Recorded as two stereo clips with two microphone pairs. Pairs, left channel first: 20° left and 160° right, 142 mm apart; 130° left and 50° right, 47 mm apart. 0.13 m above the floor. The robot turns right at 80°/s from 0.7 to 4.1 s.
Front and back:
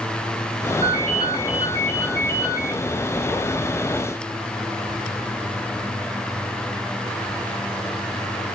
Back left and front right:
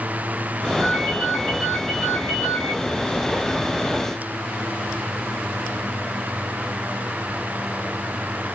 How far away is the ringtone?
About 4.5 m.